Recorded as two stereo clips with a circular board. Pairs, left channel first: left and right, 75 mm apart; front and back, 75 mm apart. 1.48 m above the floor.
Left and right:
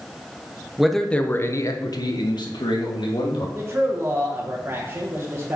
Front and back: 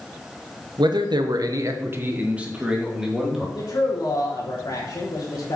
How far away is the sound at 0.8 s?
About 1.1 m.